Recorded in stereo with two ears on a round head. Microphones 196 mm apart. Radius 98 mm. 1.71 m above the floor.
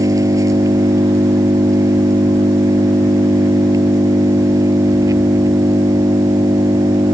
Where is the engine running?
15° right (ahead or behind).